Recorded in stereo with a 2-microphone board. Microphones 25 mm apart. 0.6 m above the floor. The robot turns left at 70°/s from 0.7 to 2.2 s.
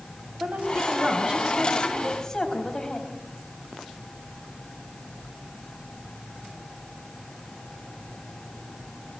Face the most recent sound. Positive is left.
turn(degrees=155)